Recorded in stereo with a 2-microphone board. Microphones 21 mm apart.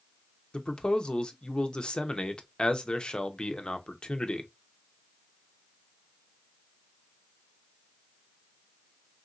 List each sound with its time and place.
0.5 s a man speaking: 45° left (ahead or behind), 0.6 m